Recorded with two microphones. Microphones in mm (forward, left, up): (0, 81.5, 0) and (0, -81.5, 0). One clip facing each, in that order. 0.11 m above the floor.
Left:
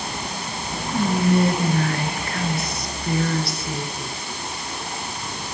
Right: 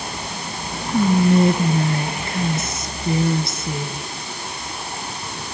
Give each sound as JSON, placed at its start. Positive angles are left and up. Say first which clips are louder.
{"t": 0.9, "sound": "whispering", "louder": "right 4 dB", "side_deg": -20, "distance_m": 1.3}